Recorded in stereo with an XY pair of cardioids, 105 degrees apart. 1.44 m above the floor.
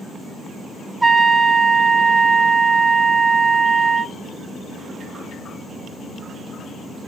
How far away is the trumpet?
About 0.7 m.